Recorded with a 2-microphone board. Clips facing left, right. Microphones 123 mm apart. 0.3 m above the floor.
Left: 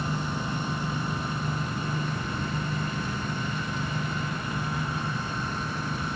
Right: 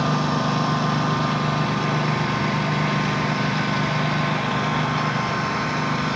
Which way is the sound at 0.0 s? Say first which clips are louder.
Right 10 dB; 85° right.